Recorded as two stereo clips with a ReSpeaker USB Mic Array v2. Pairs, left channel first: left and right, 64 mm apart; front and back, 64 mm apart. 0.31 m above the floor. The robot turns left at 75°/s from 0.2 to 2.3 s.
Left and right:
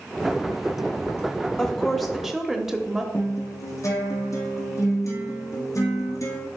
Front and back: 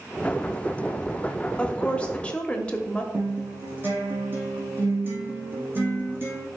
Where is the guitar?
125° left, 2.5 m.